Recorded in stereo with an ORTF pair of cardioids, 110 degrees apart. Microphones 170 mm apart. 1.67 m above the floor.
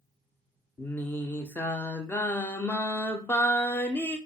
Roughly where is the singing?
Ahead.